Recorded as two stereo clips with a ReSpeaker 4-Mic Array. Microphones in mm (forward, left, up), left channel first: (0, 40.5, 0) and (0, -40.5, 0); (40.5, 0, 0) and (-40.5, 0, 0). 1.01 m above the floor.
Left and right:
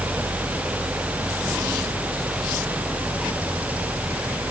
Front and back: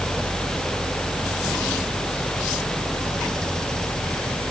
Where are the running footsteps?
I don't hear running footsteps.